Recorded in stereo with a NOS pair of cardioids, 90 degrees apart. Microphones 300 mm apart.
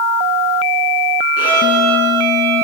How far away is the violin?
About 4 m.